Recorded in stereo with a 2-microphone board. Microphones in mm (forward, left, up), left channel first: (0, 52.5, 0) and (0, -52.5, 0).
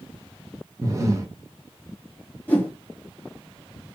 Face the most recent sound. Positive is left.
turn(degrees=15)  # may be behind; listen again after turning